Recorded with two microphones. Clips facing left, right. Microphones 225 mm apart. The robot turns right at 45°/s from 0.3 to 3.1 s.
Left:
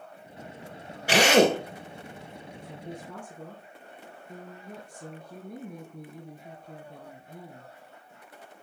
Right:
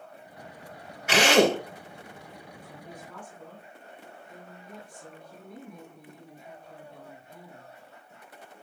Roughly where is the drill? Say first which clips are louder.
Left 1 dB; left.